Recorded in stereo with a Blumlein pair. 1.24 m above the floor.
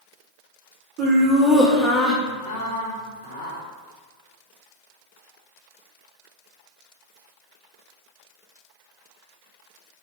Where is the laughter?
40° right, 0.9 m; by 3.6 s 75° left, 1.7 m.